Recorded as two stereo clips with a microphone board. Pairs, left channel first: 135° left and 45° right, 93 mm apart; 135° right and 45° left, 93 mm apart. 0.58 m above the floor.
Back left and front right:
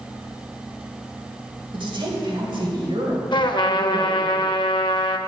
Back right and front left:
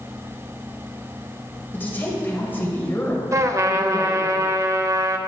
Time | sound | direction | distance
1.7 | a woman speaking | 65° right | 2 m
3.3 | a trumpet | 100° left | 0.6 m